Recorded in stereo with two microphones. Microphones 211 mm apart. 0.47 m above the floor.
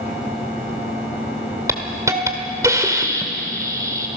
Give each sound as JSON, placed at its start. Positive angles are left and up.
{"t": 1.7, "sound": "a hiss", "side_deg": -15, "distance_m": 1.8}